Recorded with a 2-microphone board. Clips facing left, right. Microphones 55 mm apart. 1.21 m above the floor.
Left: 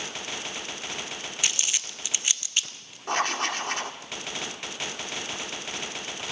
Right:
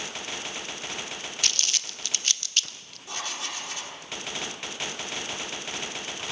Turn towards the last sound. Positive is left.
turn(degrees=50)  # may be behind; listen again after turning